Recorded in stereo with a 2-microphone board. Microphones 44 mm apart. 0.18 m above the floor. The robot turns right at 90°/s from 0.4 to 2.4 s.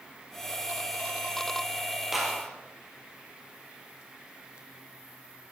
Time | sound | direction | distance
2.1 | a clap | 5° right (ahead or behind) | 3.5 m